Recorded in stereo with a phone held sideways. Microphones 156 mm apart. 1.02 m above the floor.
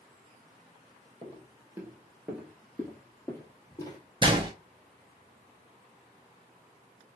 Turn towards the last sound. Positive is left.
turn(degrees=-30)  # may be behind; listen again after turning